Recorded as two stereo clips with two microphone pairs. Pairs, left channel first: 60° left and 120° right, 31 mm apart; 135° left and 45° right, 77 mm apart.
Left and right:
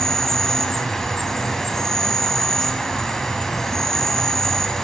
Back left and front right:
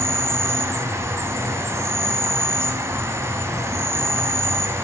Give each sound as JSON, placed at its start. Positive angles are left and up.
{"t": 0.0, "sound": "an insect", "azimuth_deg": -5, "distance_m": 0.8}